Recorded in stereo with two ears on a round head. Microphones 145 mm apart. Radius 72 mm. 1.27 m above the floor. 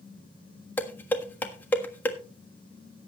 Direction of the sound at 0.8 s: 10° left (ahead or behind).